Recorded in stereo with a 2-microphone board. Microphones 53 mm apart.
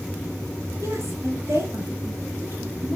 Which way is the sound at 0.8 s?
70° right (ahead or behind).